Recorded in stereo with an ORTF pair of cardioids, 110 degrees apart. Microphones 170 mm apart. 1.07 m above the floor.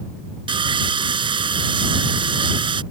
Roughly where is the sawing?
Ahead right.